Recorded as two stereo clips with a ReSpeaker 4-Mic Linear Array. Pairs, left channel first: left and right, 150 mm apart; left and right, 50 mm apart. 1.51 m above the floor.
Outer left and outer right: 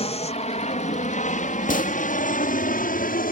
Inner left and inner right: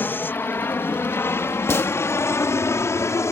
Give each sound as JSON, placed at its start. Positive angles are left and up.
{"t": 0.0, "sound": "an aircraft", "side_deg": 40}
{"t": 1.7, "sound": "a gunshot", "side_deg": 55}